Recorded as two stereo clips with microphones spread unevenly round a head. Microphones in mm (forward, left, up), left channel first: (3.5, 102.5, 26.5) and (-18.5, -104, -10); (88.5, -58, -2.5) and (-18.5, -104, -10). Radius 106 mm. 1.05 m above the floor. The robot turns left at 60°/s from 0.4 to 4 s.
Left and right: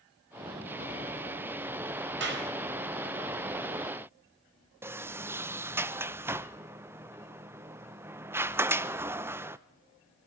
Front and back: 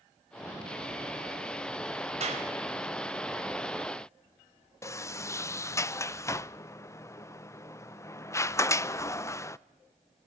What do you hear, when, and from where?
2.2 s a clap: 130° right, 4 m; by 2.5 s 150° right, 4 m
4.8 s a sliding door: 35° right, 0.6 m